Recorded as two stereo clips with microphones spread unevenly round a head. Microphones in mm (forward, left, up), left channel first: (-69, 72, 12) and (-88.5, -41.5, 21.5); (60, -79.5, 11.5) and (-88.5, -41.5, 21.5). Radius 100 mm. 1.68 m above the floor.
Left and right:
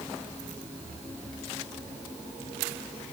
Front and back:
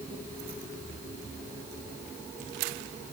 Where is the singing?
I don't hear singing.